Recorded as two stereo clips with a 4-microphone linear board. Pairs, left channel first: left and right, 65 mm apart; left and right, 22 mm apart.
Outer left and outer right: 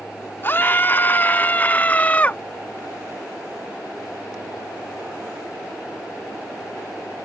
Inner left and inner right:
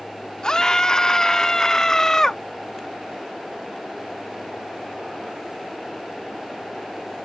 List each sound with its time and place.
0.4 s a scream: 35° left (ahead or behind); by 2.4 s 25° left (ahead or behind)